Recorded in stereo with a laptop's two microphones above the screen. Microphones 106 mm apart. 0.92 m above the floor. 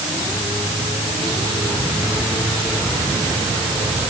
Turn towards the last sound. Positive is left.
No sound to turn to.